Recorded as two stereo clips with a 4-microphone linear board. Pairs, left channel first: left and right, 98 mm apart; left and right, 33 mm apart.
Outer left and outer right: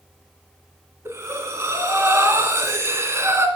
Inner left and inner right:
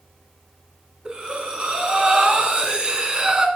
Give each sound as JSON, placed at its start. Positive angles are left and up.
{"t": 1.1, "sound": "breathing", "side_deg": -30, "distance_m": 1.7}